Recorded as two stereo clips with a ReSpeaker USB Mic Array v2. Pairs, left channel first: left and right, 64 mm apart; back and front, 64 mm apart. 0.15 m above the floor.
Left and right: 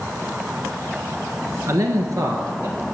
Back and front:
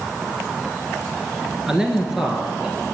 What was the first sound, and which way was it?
A man speaking, 80° right.